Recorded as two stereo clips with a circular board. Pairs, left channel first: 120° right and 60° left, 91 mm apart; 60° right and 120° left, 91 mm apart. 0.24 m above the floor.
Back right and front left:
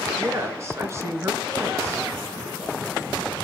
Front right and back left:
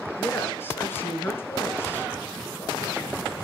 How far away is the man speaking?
About 3.5 m.